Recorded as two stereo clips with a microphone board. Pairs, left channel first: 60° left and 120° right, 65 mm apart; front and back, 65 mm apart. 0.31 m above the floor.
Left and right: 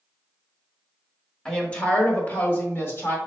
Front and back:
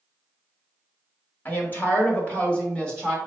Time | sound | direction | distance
1.4 | a woman speaking | 5° right | 1.2 m